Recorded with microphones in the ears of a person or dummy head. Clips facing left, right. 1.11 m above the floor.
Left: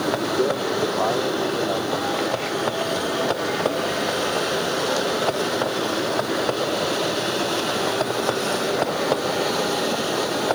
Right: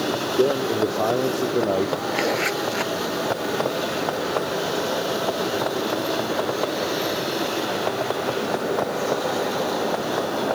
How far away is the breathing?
I don't hear breathing.